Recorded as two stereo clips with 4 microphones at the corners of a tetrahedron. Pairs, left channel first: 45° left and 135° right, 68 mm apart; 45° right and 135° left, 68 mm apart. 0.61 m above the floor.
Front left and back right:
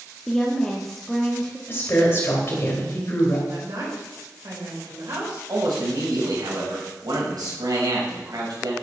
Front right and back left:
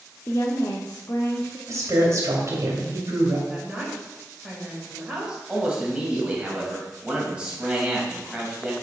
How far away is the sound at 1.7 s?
About 2.5 m.